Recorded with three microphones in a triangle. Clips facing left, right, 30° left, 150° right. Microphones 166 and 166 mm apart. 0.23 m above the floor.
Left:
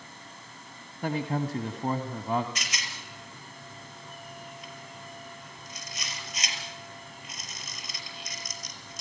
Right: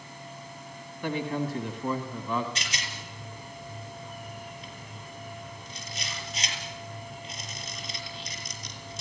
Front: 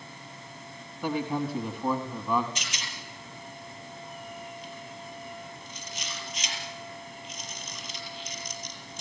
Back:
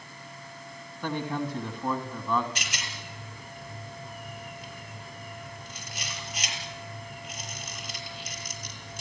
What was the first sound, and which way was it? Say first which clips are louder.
A man speaking: even, front 2 dB; 110° left.